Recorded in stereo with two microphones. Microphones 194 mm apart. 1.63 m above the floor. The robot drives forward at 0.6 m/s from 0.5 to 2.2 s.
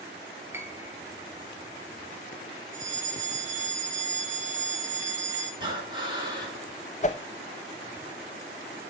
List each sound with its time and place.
0.5 s a piano: 10° right (ahead or behind), 1.0 m; by 1.0 s 15° right (ahead or behind), 0.9 m
2.7 s a fire alarm: 15° left (ahead or behind), 7 m
5.6 s breathing: 25° right (ahead or behind), 4 m
7.0 s a whoosh: 35° left (ahead or behind), 0.5 m